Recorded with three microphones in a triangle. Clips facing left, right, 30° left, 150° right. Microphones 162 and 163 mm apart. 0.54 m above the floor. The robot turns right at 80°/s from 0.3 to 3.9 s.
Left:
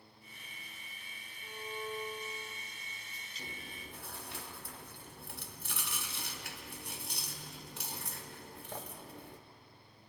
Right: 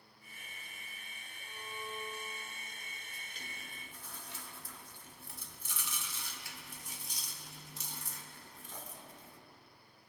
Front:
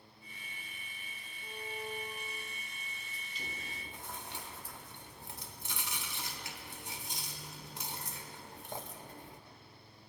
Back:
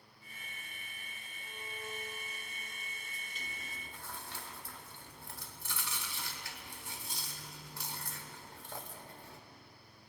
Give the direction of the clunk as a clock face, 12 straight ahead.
I don't hear a clunk.